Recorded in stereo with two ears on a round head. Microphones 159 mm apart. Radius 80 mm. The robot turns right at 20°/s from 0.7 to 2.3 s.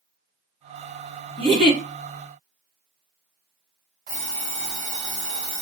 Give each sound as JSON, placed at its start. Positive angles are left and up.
{"t": 1.4, "sound": "a giggle", "side_deg": -30, "distance_m": 1.8}
{"t": 4.1, "sound": "an alarm clock", "side_deg": -40, "distance_m": 2.5}